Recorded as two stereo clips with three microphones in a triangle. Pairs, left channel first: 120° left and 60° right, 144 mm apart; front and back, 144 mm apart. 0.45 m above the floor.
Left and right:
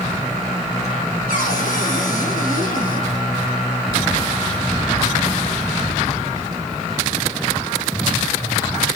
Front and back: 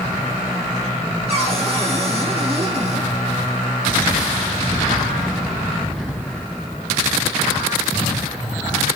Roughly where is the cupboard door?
Behind left.